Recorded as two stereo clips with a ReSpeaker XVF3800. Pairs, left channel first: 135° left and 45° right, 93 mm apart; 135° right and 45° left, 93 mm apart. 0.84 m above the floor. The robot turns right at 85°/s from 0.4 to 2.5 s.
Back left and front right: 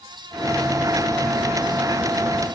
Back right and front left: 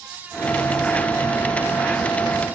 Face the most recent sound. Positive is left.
No sound to turn to.